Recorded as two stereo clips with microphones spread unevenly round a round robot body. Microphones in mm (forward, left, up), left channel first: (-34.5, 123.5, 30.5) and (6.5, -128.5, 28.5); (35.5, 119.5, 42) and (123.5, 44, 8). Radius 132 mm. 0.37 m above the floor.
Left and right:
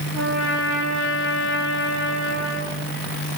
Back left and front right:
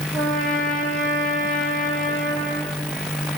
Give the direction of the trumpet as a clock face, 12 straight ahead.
1 o'clock.